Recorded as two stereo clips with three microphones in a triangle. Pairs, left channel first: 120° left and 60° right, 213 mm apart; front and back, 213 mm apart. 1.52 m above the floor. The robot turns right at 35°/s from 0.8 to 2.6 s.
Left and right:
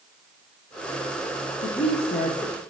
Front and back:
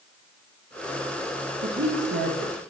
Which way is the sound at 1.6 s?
155° left.